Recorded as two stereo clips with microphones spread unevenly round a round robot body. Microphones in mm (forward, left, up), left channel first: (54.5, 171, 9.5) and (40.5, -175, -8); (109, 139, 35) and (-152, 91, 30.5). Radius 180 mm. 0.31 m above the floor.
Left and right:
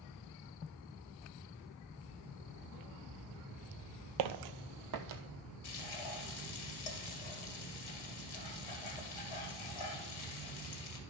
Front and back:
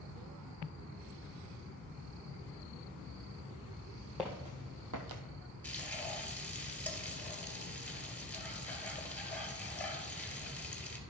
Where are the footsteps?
80° right, 0.6 m; by 5.2 s 145° right, 0.8 m.